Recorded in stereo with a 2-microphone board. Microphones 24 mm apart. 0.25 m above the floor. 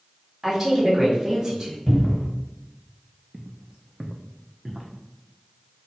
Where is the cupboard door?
15° left (ahead or behind), 1.1 m.